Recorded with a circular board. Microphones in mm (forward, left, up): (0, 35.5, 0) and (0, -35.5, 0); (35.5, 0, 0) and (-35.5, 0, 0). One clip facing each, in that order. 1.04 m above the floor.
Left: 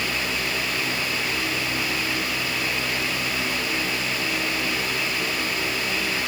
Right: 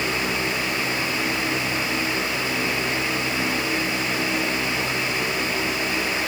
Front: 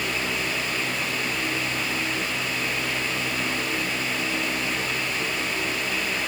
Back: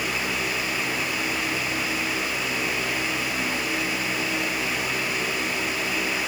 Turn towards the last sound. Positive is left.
No sound to turn to.